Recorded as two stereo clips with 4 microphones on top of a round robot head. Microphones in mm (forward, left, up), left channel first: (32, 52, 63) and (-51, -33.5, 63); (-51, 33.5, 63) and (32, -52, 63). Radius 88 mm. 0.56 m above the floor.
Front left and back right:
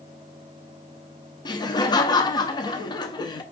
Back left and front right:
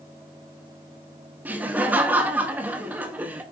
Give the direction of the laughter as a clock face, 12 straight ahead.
11 o'clock.